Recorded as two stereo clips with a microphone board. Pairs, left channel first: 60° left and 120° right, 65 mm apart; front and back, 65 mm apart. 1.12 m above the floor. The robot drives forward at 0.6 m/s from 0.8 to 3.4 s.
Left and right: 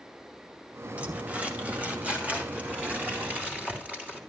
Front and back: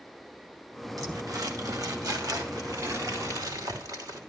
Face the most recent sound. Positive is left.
turn(degrees=175)